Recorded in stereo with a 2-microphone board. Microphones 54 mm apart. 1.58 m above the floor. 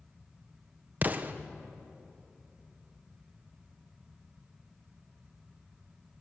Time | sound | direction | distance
1.0 | an explosion | 35° right (ahead or behind) | 0.9 m